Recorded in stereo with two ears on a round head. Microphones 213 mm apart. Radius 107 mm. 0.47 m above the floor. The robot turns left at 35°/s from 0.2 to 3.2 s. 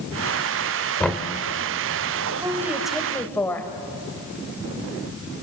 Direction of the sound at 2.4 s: 15° right (ahead or behind).